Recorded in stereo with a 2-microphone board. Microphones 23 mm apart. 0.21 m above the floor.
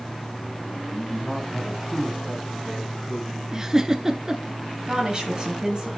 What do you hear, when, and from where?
0.9 s a man speaking: 30° left (ahead or behind), 1.1 m; by 3.4 s 5° right (ahead or behind), 4 m
3.5 s a giggle: 25° right (ahead or behind), 0.8 m
4.9 s a woman speaking: 30° right (ahead or behind), 2 m